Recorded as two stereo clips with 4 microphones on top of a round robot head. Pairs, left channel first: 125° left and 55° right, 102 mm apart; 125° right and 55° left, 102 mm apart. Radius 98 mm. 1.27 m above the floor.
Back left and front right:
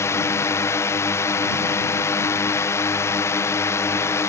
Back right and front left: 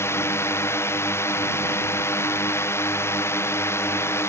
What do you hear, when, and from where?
0.0 s a drone: straight behind